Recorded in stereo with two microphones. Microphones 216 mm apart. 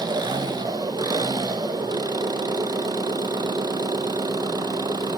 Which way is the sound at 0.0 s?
20° right (ahead or behind).